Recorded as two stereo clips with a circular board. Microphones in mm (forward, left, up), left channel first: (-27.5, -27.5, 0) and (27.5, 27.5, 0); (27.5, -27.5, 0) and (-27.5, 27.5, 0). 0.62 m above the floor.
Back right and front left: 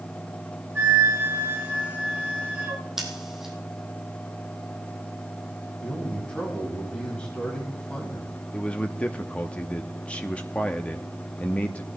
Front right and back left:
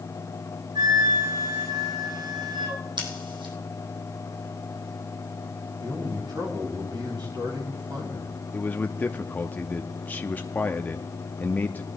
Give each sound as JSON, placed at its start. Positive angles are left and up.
{"t": 0.8, "sound": "a flute", "azimuth_deg": 110, "distance_m": 4.0}
{"t": 3.0, "sound": "scissors", "azimuth_deg": 130, "distance_m": 3.5}
{"t": 5.8, "sound": "a man speaking", "azimuth_deg": 150, "distance_m": 4.5}
{"t": 8.5, "sound": "a man speaking", "azimuth_deg": -80, "distance_m": 0.7}